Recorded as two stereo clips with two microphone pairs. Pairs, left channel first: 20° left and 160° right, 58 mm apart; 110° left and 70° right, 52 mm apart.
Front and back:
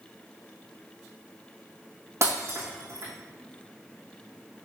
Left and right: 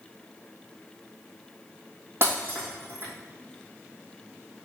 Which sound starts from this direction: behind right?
Breaking glass, at 2.2 s.